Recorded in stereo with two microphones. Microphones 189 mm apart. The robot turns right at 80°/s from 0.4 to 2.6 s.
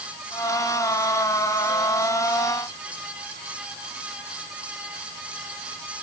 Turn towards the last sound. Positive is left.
No sound to turn to.